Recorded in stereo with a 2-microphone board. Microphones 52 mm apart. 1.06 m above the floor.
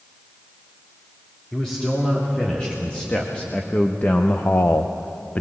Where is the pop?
I don't hear a pop.